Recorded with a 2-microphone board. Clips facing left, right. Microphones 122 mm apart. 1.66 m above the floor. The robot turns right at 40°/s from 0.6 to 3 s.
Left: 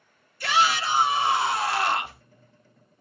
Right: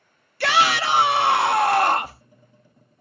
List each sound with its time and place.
0.4 s a shout: 100° right, 0.7 m; by 2.2 s 35° right, 0.7 m